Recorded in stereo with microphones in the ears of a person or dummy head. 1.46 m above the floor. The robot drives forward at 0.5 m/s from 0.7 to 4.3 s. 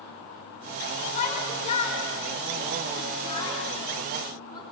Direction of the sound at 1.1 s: 50° left (ahead or behind).